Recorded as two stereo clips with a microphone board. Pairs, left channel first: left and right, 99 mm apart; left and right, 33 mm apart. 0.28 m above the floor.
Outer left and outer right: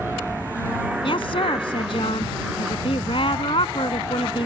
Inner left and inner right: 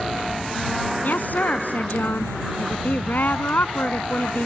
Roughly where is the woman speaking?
Left.